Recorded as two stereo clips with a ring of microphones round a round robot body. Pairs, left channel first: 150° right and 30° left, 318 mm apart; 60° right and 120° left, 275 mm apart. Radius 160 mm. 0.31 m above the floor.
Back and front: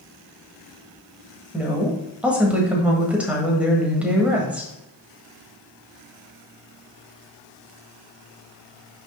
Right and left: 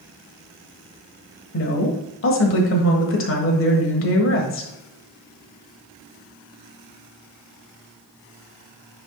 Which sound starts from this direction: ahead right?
A woman speaking, at 1.5 s.